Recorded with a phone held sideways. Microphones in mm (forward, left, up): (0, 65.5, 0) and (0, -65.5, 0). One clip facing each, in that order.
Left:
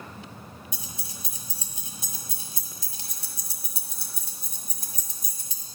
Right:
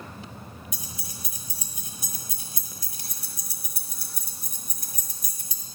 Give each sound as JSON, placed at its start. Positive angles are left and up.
{"t": 0.7, "sound": "keys jangling", "side_deg": 25, "distance_m": 1.4}